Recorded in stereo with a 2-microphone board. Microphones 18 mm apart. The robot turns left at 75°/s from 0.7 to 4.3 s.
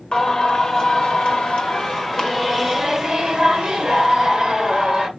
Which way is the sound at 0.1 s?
135° left.